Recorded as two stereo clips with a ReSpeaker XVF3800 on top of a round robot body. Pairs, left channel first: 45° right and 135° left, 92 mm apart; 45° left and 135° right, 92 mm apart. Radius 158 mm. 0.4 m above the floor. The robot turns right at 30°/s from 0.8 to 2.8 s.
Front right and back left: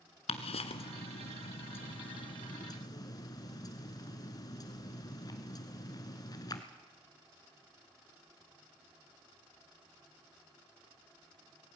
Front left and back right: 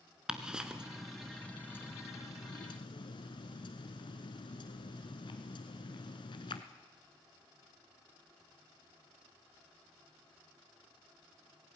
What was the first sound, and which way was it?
Ticking, 55° right.